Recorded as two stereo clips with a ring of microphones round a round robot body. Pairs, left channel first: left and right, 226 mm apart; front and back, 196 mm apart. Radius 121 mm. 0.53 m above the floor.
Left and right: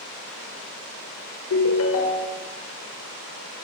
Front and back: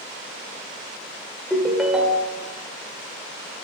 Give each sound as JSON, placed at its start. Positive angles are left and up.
{"t": 1.5, "sound": "a ringtone", "azimuth_deg": 95, "distance_m": 1.4}